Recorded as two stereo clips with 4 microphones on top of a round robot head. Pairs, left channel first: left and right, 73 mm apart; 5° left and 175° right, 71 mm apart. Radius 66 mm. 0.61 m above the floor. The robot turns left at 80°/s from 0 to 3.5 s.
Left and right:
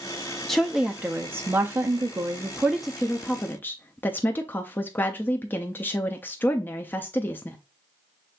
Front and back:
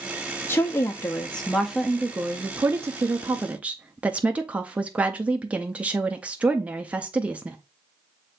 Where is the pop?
I don't hear a pop.